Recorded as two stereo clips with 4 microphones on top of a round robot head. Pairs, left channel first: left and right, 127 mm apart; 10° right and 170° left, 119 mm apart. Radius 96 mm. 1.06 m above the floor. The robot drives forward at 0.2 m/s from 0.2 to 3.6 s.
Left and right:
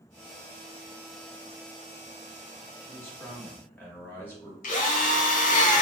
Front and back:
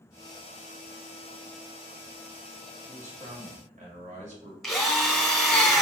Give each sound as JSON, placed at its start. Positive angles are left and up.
{"t": 2.8, "sound": "a man speaking", "azimuth_deg": 160, "distance_m": 1.5}
{"t": 4.6, "sound": "a drill", "azimuth_deg": 80, "distance_m": 0.8}